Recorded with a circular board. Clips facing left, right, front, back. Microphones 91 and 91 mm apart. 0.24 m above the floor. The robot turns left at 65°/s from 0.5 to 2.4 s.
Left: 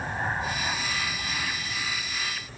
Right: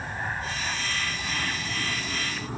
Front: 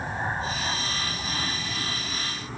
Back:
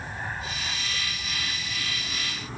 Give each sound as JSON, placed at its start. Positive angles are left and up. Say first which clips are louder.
{"t": 0.0, "sound": "an aircraft", "louder": "left 3 dB, front 5 dB", "azimuth_deg": 25}